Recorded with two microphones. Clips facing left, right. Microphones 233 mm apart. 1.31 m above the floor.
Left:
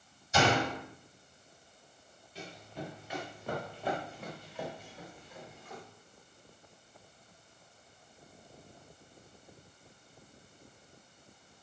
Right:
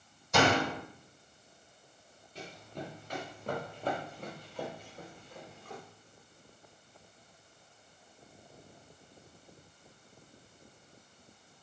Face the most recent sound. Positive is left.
turn(degrees=-50)  # may be behind; listen again after turning